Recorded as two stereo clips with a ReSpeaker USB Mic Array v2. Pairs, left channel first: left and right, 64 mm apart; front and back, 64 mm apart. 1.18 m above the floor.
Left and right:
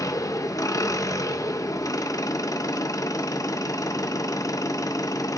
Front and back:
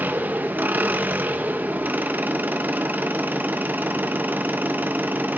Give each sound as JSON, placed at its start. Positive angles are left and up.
{"t": 0.0, "sound": "an engine running", "azimuth_deg": 115, "distance_m": 0.7}